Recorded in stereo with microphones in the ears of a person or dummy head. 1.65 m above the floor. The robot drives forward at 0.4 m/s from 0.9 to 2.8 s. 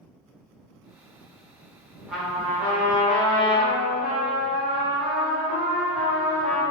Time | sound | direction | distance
2.1 | a trumpet | centre (ahead or behind) | 0.8 m